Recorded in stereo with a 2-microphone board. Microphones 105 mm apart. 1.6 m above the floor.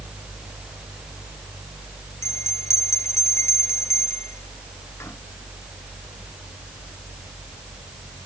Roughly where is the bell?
Left.